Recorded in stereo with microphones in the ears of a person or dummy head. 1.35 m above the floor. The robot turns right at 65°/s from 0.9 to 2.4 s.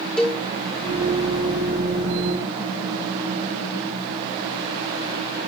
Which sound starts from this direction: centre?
A cowbell, at 0.2 s.